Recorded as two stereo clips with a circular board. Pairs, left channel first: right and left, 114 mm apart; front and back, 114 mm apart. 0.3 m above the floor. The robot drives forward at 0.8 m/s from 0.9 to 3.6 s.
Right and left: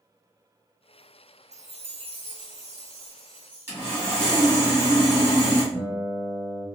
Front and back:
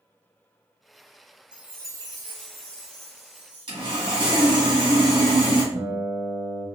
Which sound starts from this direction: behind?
A guitar, at 5.7 s.